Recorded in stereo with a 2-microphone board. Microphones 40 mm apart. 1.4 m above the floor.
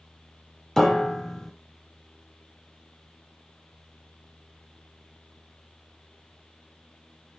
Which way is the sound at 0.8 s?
5° left (ahead or behind).